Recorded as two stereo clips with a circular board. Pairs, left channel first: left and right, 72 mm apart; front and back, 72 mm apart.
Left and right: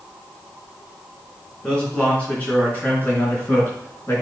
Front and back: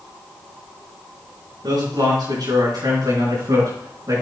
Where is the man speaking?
165° left, 5 m; by 4.2 s 145° left, 5.5 m.